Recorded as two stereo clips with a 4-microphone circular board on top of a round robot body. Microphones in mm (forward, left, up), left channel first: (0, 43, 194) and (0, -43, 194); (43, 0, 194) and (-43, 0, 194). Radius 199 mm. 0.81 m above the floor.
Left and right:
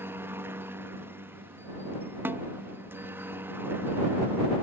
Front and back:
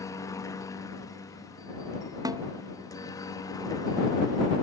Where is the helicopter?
35° right; by 4.6 s 30° right.